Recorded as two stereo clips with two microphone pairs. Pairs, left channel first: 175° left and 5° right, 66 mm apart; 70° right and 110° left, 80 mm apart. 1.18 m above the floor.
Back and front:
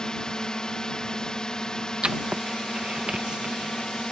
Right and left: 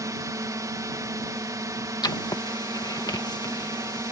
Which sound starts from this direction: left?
A drone, at 0.0 s.